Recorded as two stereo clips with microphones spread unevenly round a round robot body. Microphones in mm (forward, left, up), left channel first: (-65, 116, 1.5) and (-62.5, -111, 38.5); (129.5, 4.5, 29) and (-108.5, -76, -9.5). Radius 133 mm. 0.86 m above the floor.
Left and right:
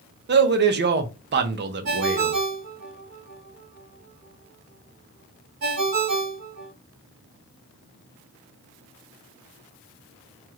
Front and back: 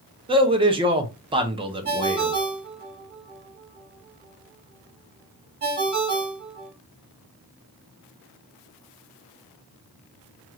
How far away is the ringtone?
About 1.7 m.